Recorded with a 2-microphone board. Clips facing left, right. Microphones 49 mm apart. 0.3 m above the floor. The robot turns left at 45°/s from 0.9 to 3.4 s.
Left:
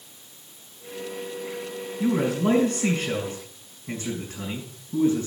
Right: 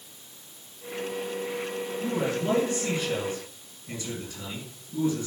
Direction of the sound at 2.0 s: 110° left.